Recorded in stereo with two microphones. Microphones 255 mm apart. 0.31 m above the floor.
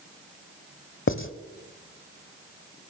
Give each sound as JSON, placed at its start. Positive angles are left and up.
{"t": 1.1, "sound": "writing", "side_deg": 55, "distance_m": 1.0}